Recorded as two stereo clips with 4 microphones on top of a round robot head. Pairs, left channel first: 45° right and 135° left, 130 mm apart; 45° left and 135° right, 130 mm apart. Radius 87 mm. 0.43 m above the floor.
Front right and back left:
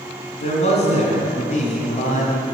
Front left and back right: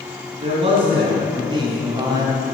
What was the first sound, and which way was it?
A man speaking, 85° right.